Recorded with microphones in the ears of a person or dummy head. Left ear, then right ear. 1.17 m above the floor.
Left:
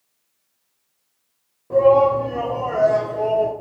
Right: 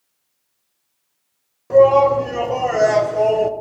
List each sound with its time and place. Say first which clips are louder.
1.7 s a shout: right 3 dB; 65° right (ahead or behind), 2 m; by 3.5 s 45° right (ahead or behind), 0.7 m